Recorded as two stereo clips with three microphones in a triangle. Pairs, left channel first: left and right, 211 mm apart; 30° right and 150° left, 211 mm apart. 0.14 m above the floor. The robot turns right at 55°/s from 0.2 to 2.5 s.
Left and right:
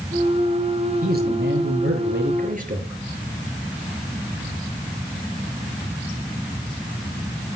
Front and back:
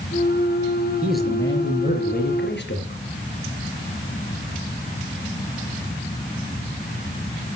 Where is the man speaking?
130° right, 3.5 m; by 3.0 s 45° right, 3.5 m.